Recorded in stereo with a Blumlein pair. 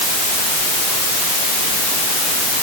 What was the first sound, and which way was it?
Only background noise.